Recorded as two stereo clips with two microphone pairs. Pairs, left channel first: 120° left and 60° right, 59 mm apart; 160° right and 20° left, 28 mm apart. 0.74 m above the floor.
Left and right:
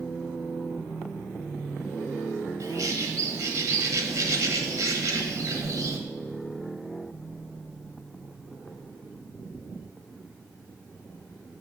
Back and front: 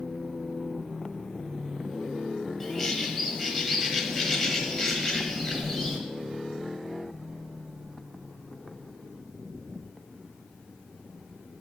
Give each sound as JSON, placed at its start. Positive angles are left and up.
{"t": 2.6, "sound": "a bird", "azimuth_deg": -80, "distance_m": 1.1}